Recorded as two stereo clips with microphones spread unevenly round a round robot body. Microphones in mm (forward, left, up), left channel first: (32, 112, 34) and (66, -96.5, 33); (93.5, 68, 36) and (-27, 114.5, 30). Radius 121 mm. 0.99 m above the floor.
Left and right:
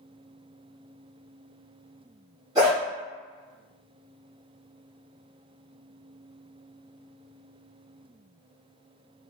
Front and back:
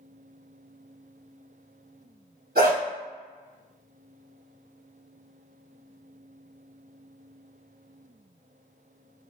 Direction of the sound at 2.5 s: 155° right.